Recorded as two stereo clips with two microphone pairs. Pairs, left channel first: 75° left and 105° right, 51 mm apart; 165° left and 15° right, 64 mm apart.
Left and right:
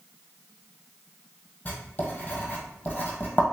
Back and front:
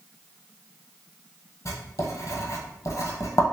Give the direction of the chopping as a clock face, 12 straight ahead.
I don't hear chopping.